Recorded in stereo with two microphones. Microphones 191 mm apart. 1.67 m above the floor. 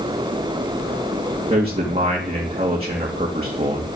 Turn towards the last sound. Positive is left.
turn(degrees=-30)  # may be behind; listen again after turning